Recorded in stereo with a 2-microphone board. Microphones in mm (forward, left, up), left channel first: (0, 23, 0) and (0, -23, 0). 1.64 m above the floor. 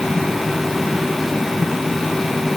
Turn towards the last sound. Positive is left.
No sound to turn to.